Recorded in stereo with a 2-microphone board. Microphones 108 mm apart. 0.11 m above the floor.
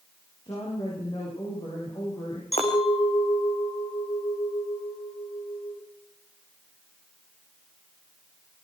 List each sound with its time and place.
0.5 s a woman speaking: 45° left (ahead or behind), 9.5 m
2.5 s a clink: 80° left, 4.5 m